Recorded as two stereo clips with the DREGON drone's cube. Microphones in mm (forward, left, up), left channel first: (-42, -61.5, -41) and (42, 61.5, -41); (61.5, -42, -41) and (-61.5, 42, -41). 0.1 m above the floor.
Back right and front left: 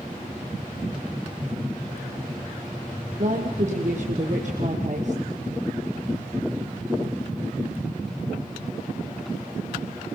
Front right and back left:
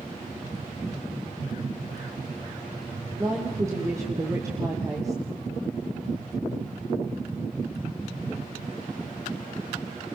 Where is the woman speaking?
80° left, 3.5 m.